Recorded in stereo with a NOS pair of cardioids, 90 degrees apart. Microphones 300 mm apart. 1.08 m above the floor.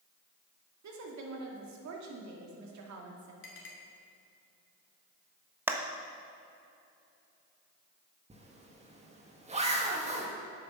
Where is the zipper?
20° right, 1.8 m.